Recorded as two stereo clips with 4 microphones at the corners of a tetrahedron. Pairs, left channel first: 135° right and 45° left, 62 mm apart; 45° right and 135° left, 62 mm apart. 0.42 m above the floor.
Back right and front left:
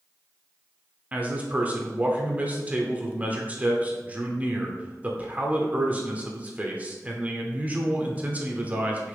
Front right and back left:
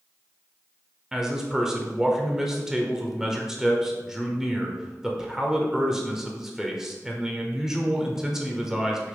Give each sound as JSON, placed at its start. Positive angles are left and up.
{"t": 1.1, "sound": "a man speaking", "azimuth_deg": 65, "distance_m": 1.1}